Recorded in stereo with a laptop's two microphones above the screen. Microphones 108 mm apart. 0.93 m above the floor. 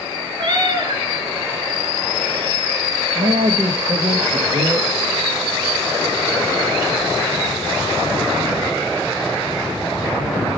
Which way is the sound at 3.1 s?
55° right (ahead or behind).